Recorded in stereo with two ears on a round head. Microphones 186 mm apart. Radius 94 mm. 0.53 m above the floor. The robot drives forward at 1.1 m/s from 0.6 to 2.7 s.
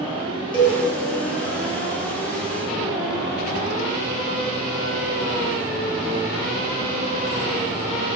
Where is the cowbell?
25° left (ahead or behind), 1.2 m.